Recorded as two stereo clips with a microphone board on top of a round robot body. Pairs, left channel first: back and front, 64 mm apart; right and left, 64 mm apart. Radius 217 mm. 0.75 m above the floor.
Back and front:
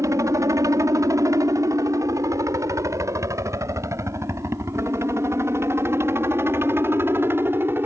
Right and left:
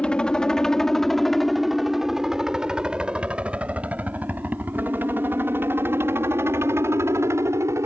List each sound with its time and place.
0.0 s a helicopter: 15° right; by 7.9 s 50° left